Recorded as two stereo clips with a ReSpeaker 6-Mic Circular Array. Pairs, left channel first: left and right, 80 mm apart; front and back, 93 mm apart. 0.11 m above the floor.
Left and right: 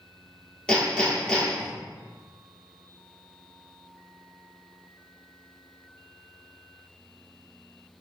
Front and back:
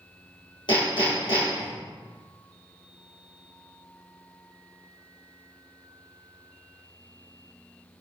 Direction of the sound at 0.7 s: 15° left.